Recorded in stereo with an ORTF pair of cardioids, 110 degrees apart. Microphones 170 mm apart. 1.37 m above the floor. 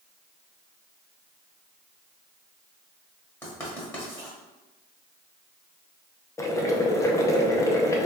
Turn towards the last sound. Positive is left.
turn(degrees=20)